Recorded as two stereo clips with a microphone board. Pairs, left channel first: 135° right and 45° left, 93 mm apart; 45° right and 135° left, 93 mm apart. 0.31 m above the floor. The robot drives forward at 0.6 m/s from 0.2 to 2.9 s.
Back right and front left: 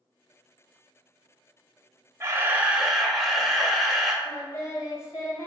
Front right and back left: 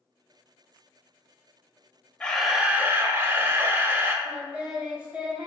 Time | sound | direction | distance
2.2 | a camera shutter | 25° left | 0.5 m
4.2 | singing | 155° right | 0.8 m